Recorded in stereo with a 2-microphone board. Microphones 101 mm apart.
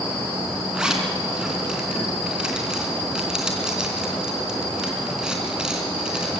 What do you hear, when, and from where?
0.7 s a zipper: 10° right (ahead or behind), 3.5 m